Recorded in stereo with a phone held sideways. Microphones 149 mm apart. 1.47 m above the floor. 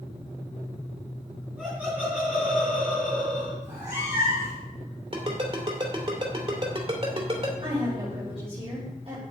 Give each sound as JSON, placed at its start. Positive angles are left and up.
{"t": 1.6, "sound": "laughter", "side_deg": -10, "distance_m": 4.0}
{"t": 3.6, "sound": "a cat meowing", "side_deg": -20, "distance_m": 5.5}
{"t": 5.1, "sound": "a ringtone", "side_deg": -40, "distance_m": 2.5}
{"t": 7.6, "sound": "a woman speaking", "side_deg": -40, "distance_m": 5.0}